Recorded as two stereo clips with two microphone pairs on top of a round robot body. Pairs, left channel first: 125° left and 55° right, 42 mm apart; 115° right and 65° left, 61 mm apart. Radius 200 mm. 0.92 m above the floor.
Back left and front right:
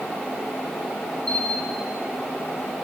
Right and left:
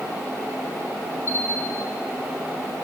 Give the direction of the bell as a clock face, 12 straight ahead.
5 o'clock.